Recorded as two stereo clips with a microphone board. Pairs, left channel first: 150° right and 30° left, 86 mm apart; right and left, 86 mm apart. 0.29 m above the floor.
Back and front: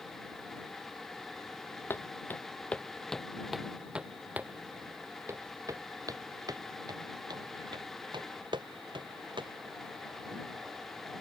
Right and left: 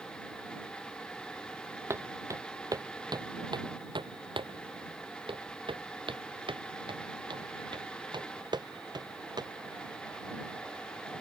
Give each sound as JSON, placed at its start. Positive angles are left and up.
{"t": 1.9, "sound": "footsteps", "azimuth_deg": 150}